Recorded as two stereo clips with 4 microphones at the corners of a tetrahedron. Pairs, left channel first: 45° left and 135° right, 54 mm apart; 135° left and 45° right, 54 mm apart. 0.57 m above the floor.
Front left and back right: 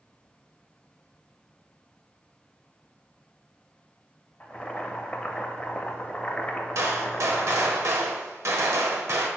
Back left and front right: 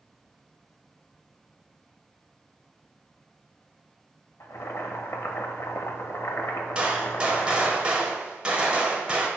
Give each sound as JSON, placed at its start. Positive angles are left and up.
{"t": 4.4, "sound": "boiling", "azimuth_deg": 110, "distance_m": 0.5}
{"t": 6.8, "sound": "a gunshot", "azimuth_deg": -115, "distance_m": 0.8}